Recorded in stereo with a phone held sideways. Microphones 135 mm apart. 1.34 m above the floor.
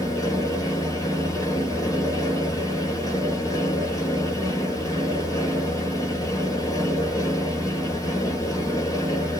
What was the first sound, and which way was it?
A fan, 25° left (ahead or behind).